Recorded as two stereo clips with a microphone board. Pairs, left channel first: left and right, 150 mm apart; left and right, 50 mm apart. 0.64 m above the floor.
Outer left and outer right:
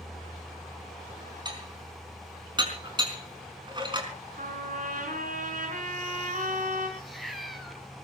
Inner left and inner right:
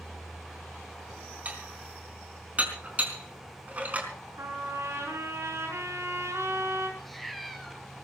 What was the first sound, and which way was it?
Dishes clattering, 30° right (ahead or behind).